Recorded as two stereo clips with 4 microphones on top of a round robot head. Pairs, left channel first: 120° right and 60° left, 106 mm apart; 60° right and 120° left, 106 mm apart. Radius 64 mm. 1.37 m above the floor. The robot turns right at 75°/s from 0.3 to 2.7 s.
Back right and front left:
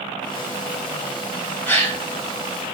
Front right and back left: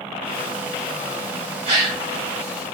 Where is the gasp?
160° left, 1.3 m; by 2.0 s 170° right, 1.3 m.